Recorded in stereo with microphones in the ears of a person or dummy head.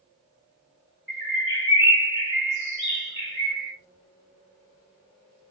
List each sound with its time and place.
1.1 s a bird: 20° right (ahead or behind), 2 m